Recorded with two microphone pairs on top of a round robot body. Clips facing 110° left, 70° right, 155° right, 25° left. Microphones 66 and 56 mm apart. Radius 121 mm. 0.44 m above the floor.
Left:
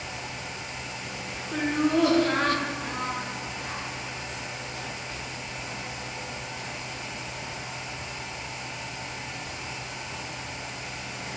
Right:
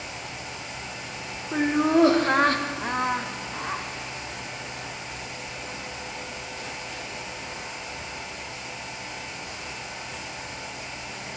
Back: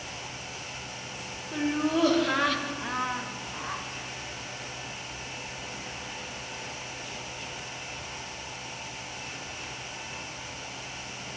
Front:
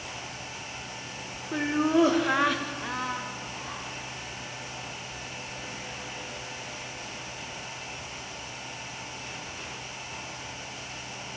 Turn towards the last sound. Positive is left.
turn(degrees=-95)